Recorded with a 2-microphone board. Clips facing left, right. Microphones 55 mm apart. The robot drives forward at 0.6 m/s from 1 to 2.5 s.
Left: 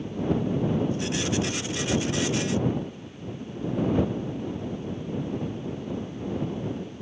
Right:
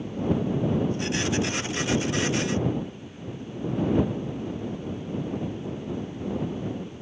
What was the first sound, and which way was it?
Only background noise.